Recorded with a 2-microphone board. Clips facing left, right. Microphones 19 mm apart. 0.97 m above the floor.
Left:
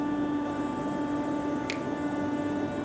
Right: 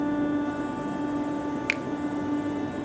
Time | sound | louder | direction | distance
1.7 | a finger snap | right 5 dB | 50° right (ahead or behind) | 0.8 m